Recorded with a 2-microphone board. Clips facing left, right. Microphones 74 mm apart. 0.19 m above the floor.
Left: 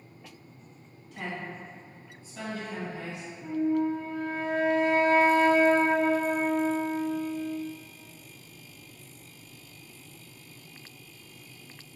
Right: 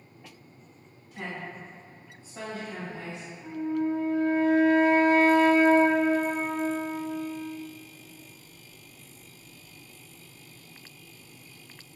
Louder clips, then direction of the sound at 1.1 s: Left 1 dB; centre (ahead or behind).